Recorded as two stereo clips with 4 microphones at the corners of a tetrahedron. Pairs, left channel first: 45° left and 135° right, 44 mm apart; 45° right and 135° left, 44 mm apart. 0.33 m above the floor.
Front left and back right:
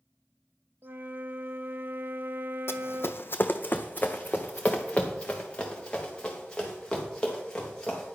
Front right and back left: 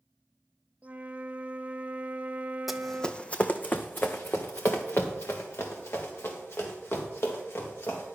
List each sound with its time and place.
0.8 s a flute: 170° right, 0.6 m
2.7 s running footsteps: 50° left, 0.7 m; by 8.2 s 30° right, 4 m